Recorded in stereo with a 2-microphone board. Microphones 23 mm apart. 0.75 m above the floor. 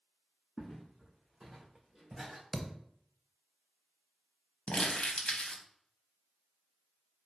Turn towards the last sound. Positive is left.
turn(degrees=60)  # may be behind; listen again after turning